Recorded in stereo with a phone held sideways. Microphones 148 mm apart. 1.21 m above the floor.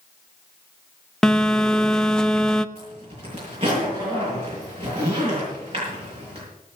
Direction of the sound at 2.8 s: 40° right (ahead or behind).